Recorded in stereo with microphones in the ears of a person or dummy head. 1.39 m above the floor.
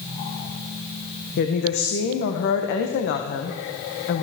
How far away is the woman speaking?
About 0.8 m.